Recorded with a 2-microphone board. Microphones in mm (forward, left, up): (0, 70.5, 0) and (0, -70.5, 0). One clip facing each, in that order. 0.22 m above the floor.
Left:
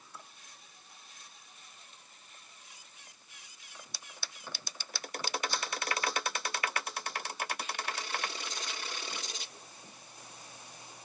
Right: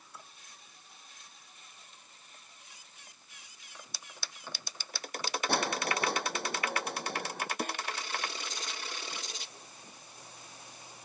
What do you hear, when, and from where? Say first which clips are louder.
5.5 s crushing: right 5 dB; 60° right (ahead or behind)
7.6 s a snare drum: right 4 dB; 55° right (ahead or behind)